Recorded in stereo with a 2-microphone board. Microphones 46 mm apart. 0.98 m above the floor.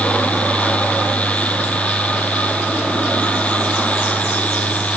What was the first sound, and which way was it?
Only background noise.